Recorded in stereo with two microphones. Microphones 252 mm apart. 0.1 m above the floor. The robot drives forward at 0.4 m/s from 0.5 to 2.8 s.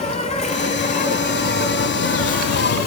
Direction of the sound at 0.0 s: 25° left (ahead or behind).